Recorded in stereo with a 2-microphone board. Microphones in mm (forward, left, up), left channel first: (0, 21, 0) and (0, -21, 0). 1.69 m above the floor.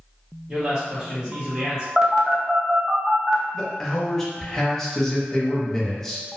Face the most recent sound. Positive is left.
turn(degrees=5)  # may be behind; listen again after turning